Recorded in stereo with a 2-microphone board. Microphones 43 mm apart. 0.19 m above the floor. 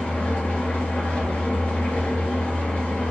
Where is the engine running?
40° left (ahead or behind), 1.3 m.